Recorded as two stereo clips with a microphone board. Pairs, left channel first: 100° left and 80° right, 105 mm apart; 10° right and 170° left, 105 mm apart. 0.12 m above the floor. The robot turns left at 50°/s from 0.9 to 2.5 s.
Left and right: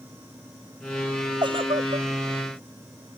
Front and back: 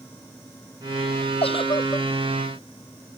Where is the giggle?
40° right; by 2.1 s 70° right.